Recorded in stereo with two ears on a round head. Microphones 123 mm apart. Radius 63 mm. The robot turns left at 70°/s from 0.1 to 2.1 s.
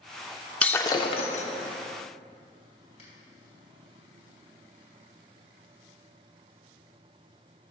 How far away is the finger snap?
About 3 m.